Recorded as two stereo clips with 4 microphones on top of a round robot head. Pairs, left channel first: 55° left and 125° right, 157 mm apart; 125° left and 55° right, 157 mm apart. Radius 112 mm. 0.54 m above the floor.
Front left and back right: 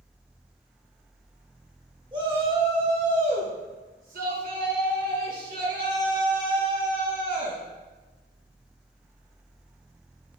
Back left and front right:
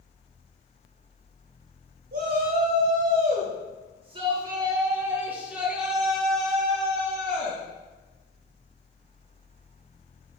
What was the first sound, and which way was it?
A shout, 65° right.